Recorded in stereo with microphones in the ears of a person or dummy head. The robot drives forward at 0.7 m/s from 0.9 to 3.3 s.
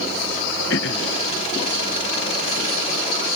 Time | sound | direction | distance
0.7 | throat clearing | 70° left (ahead or behind) | ?